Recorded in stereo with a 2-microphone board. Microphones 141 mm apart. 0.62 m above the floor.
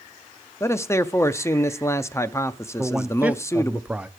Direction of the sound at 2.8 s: 10° right (ahead or behind).